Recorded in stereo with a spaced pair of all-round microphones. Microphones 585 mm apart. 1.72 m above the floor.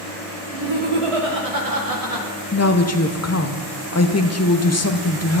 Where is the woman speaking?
25° left (ahead or behind), 0.7 m.